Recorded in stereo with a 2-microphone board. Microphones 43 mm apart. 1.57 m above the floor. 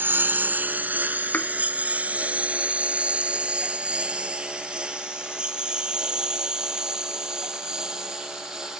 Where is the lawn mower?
55° right (ahead or behind); by 8.8 s 15° right (ahead or behind).